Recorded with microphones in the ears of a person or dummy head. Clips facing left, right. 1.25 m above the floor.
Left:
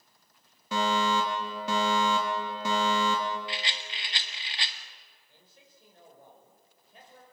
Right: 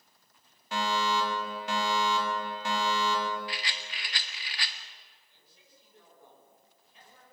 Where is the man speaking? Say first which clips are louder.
Left 5 dB; 45° left (ahead or behind), 6.5 m.